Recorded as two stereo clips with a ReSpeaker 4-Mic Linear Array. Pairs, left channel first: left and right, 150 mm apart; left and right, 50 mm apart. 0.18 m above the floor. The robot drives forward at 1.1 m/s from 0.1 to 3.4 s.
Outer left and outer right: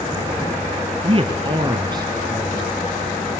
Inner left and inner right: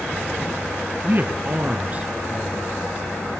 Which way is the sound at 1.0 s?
40° right (ahead or behind).